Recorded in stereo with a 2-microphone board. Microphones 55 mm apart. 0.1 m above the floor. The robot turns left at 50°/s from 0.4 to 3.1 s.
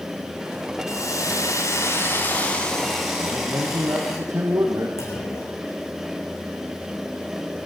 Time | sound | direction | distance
0.9 | a hiss | 105° left | 7 m
3.2 | a man speaking | 70° right (ahead or behind) | 4.5 m
5.0 | a clunk | 80° left | 8.5 m